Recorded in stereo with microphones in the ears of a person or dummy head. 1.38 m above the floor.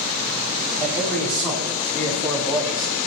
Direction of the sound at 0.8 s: 10° left (ahead or behind).